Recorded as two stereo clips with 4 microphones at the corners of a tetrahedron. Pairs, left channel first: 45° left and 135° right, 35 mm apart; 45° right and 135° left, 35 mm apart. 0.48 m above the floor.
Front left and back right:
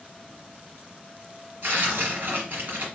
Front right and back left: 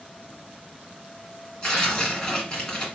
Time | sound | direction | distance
1.6 | tearing paper | 110° right | 1.8 m